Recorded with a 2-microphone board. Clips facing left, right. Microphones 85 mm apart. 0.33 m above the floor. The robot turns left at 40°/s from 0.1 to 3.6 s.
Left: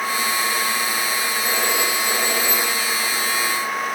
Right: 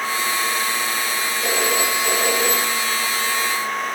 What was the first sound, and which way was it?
A phone ringing, 70° right.